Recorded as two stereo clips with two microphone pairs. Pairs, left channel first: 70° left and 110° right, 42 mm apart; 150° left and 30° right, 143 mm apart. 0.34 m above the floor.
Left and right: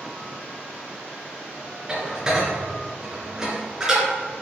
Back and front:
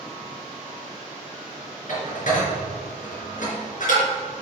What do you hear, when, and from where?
1.9 s dishes clattering: straight behind, 3 m